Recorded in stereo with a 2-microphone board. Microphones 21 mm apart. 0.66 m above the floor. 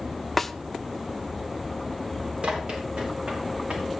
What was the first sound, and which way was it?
A snare drum, 10° left (ahead or behind).